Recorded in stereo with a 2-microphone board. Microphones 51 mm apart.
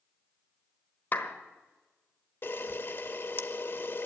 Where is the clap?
40° left (ahead or behind), 1.2 m.